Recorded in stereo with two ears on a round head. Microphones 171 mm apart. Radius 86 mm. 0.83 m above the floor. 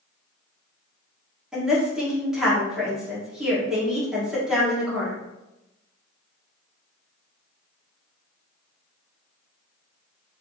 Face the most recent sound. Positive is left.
turn(degrees=-5)  # may be behind; listen again after turning